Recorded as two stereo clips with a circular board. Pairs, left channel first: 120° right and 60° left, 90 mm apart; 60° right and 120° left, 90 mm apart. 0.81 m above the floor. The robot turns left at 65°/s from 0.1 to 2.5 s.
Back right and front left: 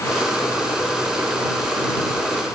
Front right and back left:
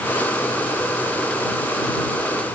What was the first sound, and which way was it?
Only background noise.